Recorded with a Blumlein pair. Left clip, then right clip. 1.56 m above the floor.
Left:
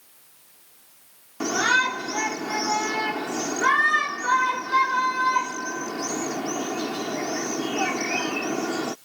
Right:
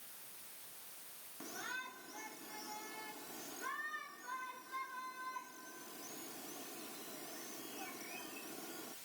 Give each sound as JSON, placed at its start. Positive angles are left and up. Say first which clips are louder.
{"t": 1.4, "sound": "a shout", "louder": "left 25 dB", "azimuth_deg": 50}